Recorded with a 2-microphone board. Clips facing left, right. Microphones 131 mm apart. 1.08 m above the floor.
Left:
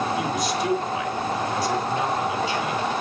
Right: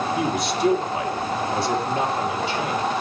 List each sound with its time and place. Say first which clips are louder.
0.2 s a man speaking: right 2 dB; 60° right (ahead or behind), 3 m